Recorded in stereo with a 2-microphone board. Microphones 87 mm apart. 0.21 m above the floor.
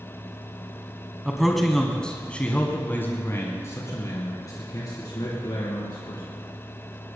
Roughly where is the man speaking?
Centre.